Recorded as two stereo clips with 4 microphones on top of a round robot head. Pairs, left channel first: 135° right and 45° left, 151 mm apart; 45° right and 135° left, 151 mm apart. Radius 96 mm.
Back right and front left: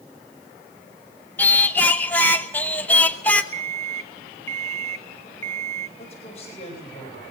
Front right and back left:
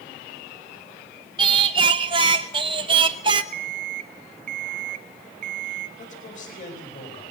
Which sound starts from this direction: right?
A man speaking, at 6.0 s.